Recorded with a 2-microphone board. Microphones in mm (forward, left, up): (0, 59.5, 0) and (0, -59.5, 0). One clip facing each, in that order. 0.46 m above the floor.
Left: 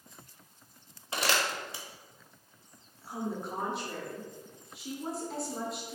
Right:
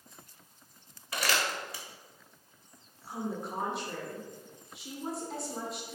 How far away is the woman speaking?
About 0.8 m.